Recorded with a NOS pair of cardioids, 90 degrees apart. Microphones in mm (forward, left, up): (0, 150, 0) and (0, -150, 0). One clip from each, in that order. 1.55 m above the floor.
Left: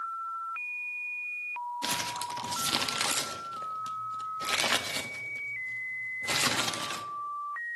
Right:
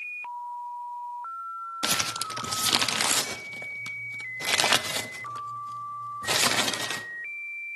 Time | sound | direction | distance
1.8 | crumpling | 25° right | 0.5 m